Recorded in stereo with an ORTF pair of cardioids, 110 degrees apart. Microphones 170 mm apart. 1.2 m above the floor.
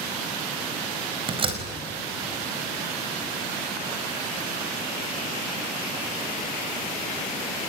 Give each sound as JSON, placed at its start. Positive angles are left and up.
{"t": 1.3, "sound": "a door slam", "azimuth_deg": -30, "distance_m": 5.0}